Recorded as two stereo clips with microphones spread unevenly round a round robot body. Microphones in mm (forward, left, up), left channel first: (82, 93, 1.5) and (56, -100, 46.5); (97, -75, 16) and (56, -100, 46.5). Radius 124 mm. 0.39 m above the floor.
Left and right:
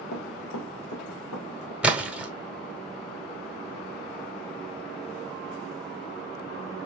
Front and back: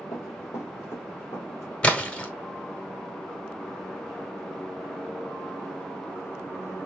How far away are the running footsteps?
About 1.0 m.